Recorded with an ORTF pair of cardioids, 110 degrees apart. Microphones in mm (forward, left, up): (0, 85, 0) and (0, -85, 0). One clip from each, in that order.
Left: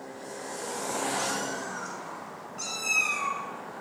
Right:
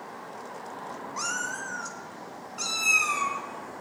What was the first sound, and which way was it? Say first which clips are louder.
A cat meowing: even; 40° right.